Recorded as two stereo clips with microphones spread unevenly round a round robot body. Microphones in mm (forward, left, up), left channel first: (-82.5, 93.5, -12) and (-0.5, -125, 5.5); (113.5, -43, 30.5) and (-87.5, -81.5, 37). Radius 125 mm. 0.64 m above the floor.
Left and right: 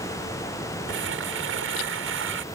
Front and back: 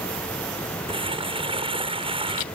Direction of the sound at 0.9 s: 105° right.